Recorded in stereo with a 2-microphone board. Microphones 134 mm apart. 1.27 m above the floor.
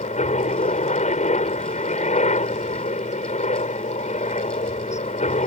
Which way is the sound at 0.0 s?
65° left (ahead or behind).